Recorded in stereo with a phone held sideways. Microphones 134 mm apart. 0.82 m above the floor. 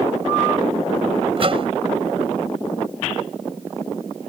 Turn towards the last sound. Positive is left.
turn(degrees=-45)  # may be behind; listen again after turning